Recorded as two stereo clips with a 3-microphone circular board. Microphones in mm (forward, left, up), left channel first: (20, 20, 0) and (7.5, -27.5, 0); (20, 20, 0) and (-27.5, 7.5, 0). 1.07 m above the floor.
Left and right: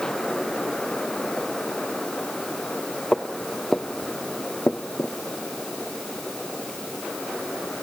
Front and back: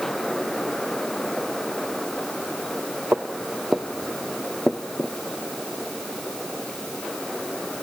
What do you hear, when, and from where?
3.1 s footsteps: 170° left, 1.8 m; by 5.1 s 65° left, 1.3 m